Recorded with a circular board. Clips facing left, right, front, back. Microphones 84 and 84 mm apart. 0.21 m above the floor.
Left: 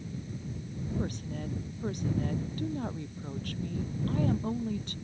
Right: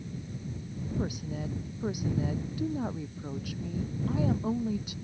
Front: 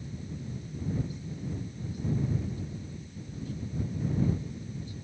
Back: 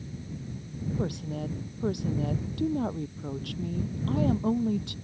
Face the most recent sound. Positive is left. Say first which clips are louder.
# right 3 dB, back 5 dB
turn(degrees=-170)